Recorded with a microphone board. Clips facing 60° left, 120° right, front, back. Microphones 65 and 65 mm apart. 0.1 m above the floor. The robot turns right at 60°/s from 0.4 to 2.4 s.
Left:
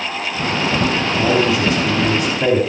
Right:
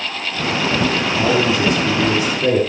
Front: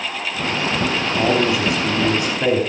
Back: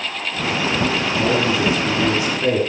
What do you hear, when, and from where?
1.2 s a man speaking: 25° right, 5 m; by 2.6 s 50° left, 5 m